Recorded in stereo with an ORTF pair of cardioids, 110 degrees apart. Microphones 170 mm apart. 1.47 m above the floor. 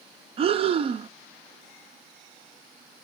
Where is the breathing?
35° right, 0.5 m.